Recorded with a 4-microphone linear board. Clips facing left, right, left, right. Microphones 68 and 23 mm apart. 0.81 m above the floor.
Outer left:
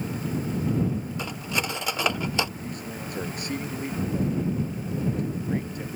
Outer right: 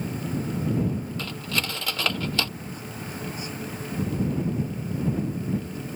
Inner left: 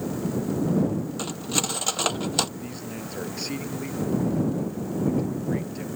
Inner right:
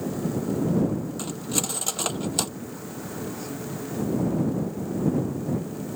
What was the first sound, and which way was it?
Cutlery clinking, 20° left (ahead or behind).